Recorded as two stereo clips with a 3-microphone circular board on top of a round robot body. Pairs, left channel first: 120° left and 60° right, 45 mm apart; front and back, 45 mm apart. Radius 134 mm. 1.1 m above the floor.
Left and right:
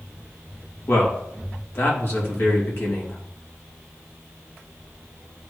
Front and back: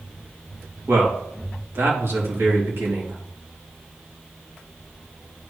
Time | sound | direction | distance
0.9 | a man speaking | 150° left | 2.5 m